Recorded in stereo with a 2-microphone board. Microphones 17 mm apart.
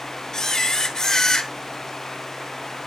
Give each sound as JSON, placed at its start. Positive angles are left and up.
{"t": 0.3, "sound": "a camera shutter", "side_deg": 45, "distance_m": 1.0}